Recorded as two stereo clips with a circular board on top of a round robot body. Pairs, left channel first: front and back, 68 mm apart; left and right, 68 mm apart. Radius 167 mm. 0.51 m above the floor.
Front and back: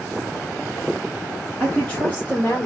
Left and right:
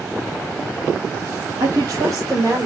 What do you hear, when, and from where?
1.6 s a woman speaking: 70° right, 2 m; by 2.6 s 55° right, 2 m